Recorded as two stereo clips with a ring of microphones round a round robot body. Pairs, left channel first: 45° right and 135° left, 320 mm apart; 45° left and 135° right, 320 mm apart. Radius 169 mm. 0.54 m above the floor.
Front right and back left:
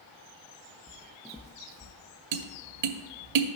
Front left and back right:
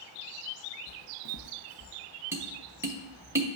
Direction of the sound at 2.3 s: 145° left.